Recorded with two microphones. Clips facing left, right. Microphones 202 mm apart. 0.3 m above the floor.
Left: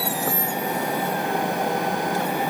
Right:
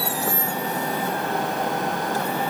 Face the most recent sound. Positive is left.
No sound to turn to.